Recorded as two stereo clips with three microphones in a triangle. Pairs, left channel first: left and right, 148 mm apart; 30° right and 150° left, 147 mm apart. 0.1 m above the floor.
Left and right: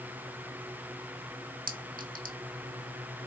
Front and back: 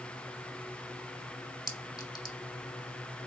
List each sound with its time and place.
1.7 s a clink: 95° right, 3 m